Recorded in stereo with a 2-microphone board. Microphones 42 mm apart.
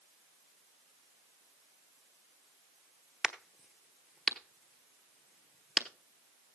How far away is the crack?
About 1.0 m.